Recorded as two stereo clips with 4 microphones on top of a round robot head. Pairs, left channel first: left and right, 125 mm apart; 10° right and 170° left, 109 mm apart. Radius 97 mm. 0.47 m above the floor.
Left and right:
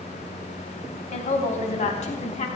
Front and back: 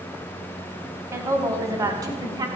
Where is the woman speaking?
105° left, 3 m; by 2.5 s 115° left, 4 m.